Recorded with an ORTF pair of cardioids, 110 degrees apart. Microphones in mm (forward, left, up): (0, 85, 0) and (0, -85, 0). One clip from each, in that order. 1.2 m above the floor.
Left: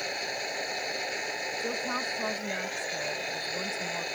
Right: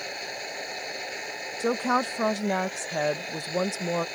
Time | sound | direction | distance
0.0 | a machine running | 10° left | ?
1.6 | a woman speaking | 65° right | ?